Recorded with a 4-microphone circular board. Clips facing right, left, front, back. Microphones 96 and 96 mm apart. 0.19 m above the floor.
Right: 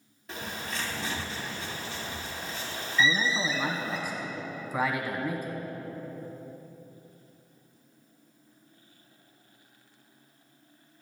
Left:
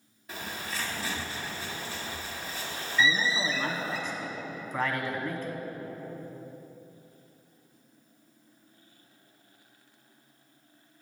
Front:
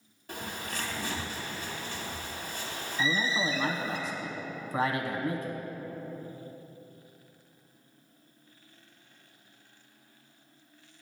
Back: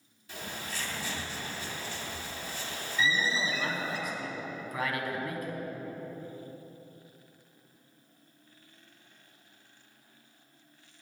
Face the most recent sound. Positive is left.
turn(degrees=-20)